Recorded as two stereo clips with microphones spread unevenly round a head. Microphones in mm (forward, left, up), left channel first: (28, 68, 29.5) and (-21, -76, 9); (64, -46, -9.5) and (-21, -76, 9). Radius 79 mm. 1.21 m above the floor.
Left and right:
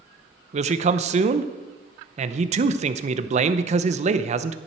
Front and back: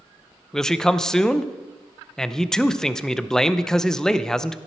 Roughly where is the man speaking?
Ahead right.